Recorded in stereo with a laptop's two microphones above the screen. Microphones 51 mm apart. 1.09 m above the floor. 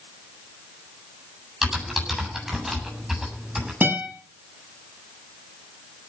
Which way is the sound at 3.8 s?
35° right (ahead or behind).